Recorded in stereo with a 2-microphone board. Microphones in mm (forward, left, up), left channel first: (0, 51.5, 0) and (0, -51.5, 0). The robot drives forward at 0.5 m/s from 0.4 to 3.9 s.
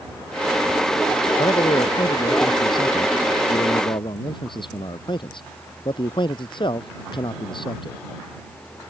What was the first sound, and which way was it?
A man speaking, 45° left (ahead or behind).